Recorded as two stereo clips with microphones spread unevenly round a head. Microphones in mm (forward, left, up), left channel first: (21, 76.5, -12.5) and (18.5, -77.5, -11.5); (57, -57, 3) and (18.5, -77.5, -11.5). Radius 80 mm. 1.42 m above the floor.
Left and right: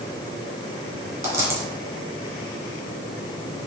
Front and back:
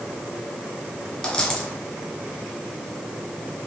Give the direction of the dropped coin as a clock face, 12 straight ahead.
1 o'clock.